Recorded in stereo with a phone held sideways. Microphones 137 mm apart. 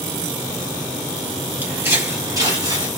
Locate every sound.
1.6 s footsteps: 15° right (ahead or behind), 1.8 m; by 2.9 s 35° right (ahead or behind), 1.9 m